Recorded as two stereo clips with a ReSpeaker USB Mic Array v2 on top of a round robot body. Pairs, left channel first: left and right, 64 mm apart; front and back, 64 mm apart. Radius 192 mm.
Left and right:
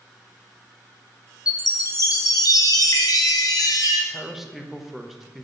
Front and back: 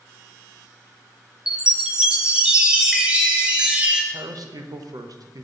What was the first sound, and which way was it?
A chime, 105° left.